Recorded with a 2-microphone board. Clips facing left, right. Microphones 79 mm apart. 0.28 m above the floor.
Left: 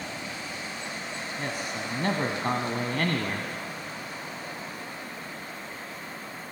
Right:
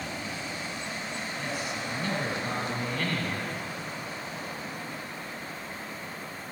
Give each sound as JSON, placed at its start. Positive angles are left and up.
{"t": 1.4, "sound": "a man speaking", "side_deg": 55, "distance_m": 1.8}